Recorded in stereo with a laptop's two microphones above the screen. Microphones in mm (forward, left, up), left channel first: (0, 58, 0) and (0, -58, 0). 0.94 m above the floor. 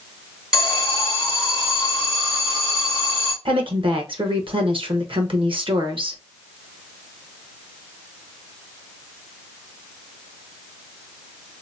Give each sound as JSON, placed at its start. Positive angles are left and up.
{"t": 0.5, "sound": "an alarm", "side_deg": -5, "distance_m": 1.7}
{"t": 3.5, "sound": "a woman speaking", "side_deg": -50, "distance_m": 1.0}